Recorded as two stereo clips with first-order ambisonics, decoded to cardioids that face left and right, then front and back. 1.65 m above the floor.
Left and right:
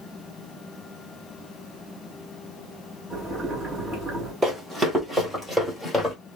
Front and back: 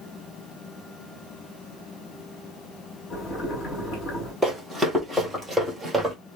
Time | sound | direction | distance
3.1 | boiling | 25° right | 2.0 m
4.4 | running footsteps | 85° right | 1.7 m